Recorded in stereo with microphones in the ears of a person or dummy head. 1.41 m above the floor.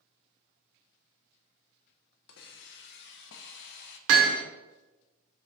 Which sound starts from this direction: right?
Hammering, at 4.1 s.